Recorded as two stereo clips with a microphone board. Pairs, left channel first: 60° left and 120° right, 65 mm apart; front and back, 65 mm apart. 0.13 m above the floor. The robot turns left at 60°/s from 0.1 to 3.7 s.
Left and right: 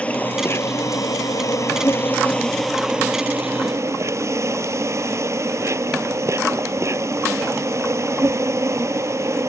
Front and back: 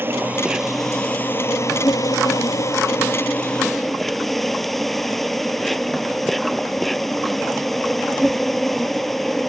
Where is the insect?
125° left; by 9.5 s 90° right.